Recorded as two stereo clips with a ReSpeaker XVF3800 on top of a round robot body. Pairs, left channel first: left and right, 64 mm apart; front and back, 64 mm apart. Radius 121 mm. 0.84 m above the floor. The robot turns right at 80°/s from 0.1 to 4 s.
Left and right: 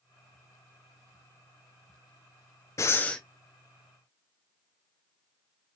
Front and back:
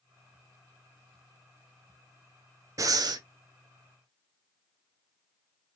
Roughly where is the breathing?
Behind left.